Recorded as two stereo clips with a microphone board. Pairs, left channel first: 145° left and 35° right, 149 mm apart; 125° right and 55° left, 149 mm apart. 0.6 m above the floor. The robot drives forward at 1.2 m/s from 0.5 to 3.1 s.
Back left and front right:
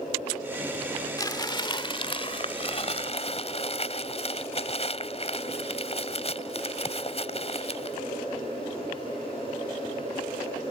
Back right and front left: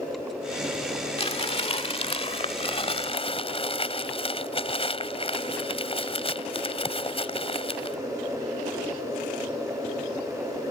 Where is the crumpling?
155° right; by 8.0 s 170° right.